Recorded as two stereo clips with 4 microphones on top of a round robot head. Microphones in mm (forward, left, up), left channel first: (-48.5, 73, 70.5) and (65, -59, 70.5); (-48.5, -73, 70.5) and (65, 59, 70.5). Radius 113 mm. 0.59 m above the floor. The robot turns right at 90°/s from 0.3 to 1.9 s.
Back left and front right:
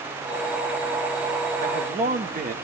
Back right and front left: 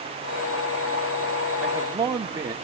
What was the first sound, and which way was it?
A man speaking, 45° right.